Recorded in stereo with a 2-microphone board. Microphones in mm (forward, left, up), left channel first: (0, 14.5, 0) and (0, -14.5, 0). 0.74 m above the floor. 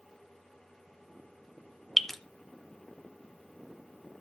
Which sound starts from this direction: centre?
Dripping, at 2.0 s.